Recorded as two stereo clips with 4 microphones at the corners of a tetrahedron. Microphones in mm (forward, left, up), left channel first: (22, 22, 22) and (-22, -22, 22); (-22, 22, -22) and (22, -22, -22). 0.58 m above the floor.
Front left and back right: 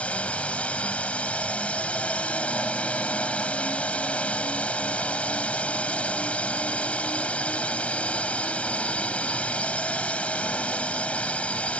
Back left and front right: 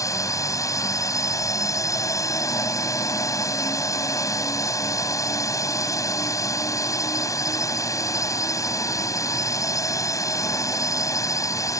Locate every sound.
0.0 s a drone: 115° left